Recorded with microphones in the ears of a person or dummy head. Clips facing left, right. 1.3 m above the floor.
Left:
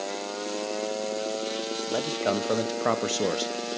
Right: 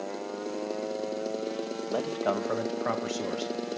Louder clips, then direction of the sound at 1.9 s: Left 2 dB; 10° left (ahead or behind).